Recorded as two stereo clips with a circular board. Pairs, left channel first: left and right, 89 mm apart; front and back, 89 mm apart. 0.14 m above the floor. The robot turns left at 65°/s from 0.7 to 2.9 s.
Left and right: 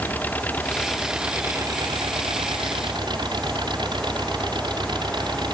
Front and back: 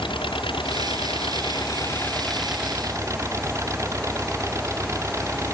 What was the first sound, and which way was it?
An engine running, 20° left.